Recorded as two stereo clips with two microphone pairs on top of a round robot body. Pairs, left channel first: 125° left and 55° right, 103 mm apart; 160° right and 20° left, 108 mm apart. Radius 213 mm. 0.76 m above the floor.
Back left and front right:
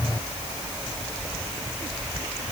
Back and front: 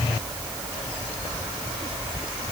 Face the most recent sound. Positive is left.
No sound to turn to.